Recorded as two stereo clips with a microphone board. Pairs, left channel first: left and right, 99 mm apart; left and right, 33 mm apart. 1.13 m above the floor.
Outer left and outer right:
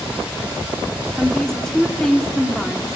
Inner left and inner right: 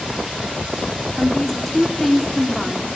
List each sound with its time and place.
1.2 s a woman speaking: 5° left (ahead or behind), 2.5 m